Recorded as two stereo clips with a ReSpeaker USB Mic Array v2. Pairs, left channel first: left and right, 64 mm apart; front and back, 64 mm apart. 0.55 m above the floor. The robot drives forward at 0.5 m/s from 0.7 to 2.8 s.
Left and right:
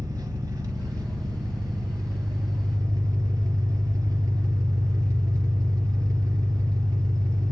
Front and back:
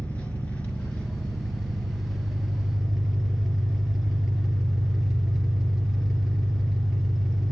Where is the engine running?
70° right, 2.5 m; by 7.5 s 95° right, 2 m.